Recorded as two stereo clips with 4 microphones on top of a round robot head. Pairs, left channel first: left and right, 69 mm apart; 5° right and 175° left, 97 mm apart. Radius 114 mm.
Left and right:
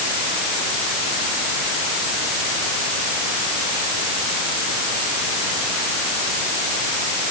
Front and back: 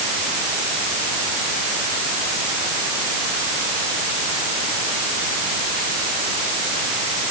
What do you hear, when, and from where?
Only background noise.